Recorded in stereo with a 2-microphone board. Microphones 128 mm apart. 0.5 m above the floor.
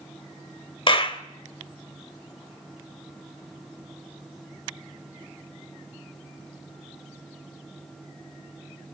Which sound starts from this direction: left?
A clap, at 0.9 s.